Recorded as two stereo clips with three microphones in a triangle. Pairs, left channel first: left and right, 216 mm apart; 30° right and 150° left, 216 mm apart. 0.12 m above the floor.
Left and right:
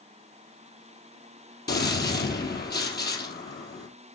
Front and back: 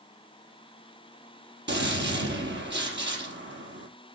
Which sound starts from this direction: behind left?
A gunshot, at 1.7 s.